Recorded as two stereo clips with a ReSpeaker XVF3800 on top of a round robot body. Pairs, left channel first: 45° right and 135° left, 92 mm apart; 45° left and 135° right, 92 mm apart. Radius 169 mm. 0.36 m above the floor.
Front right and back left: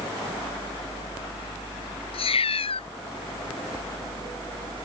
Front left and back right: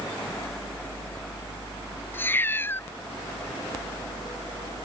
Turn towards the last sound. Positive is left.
turn(degrees=-25)